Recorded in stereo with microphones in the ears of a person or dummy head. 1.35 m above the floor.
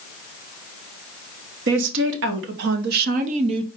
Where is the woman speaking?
65° right (ahead or behind), 1.4 m; by 3.7 s 25° right (ahead or behind), 0.5 m.